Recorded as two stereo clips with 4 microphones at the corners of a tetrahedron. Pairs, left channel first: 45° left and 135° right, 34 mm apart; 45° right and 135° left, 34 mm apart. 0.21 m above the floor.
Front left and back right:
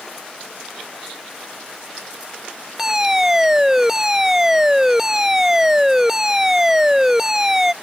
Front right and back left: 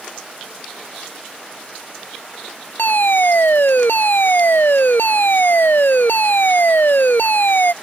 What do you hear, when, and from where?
2.8 s a fire alarm: 55° right